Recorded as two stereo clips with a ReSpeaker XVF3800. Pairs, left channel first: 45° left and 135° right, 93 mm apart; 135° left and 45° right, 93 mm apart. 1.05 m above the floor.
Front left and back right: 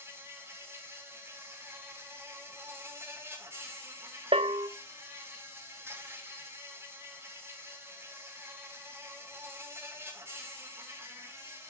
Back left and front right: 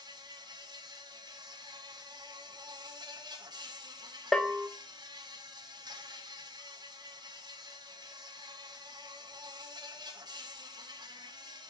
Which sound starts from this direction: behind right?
A bell, at 4.3 s.